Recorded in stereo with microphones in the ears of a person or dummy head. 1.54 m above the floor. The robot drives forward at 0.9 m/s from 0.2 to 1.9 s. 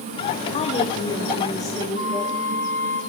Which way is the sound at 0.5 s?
40° left (ahead or behind).